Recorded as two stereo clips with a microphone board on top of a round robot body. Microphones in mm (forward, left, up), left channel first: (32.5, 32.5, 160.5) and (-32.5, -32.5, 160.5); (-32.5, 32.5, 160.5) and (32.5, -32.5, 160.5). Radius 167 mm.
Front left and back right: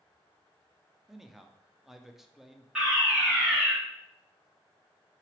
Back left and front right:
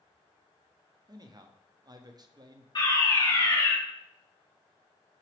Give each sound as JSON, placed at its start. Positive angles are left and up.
{"t": 1.1, "sound": "a man speaking", "azimuth_deg": -50, "distance_m": 1.0}
{"t": 2.8, "sound": "a fire alarm", "azimuth_deg": 145, "distance_m": 3.0}